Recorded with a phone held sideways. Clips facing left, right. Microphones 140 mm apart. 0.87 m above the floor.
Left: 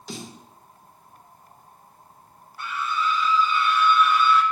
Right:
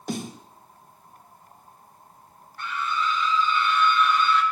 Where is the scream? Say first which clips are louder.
Left 1 dB; 5° left (ahead or behind), 2 m.